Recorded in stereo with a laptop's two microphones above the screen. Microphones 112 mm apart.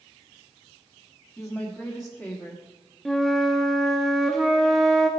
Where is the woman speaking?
5° left (ahead or behind), 1.5 m.